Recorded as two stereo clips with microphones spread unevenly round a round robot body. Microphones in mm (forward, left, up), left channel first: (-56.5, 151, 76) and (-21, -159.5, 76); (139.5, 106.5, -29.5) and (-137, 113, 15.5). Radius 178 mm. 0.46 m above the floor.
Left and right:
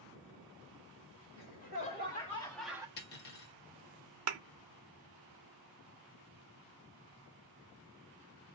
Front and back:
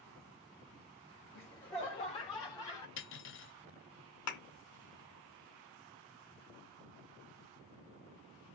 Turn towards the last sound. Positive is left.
turn(degrees=-35)